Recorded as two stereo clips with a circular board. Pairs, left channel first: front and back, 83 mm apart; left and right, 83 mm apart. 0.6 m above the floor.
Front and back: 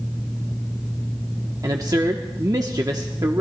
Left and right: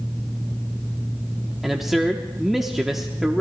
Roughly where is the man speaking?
Behind.